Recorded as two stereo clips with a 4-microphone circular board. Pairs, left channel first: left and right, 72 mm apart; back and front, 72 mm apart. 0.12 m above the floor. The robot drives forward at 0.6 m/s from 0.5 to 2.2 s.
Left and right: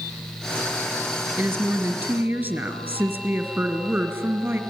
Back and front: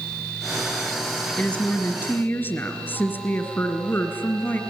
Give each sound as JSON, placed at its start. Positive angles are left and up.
{"t": 1.4, "sound": "a woman speaking", "azimuth_deg": -120, "distance_m": 1.6}